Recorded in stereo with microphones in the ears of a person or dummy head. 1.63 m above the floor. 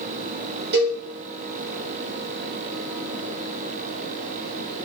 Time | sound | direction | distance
0.7 | a cowbell | 50° right (ahead or behind) | 2.5 m